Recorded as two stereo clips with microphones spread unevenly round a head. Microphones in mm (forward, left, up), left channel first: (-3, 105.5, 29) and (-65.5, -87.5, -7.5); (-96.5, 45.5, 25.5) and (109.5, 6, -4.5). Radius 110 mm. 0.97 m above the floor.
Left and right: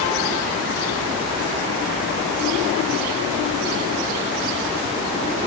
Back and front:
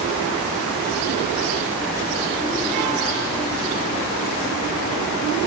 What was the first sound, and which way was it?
Only background noise.